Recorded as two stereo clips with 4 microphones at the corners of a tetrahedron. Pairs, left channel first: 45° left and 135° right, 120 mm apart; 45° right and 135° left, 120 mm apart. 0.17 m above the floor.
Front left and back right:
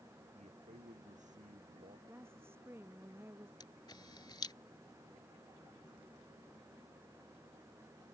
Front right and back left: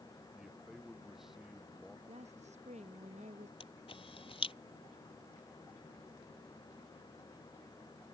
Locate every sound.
0.3 s a man speaking: 140° right
2.1 s a woman speaking: 155° left
3.6 s a camera shutter: 10° right